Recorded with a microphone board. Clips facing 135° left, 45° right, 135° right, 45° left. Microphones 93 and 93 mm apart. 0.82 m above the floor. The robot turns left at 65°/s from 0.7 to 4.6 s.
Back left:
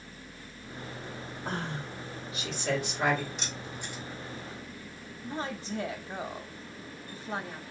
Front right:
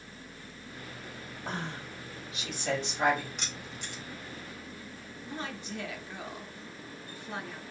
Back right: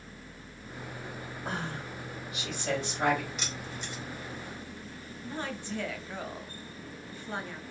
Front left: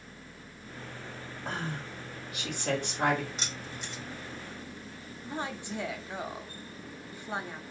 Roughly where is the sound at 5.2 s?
Left.